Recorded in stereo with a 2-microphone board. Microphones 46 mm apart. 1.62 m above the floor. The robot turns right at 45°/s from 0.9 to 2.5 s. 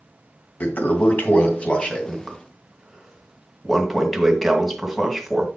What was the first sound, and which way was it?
A toilet flushing, 105° left.